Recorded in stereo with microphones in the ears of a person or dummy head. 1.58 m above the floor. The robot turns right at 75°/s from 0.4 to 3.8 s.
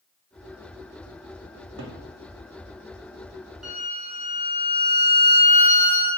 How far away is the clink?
I don't hear a clink.